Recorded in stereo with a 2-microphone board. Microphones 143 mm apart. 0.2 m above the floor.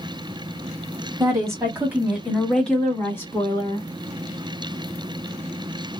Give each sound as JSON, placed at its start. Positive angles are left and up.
{"t": 1.2, "sound": "a woman speaking", "side_deg": -25, "distance_m": 1.3}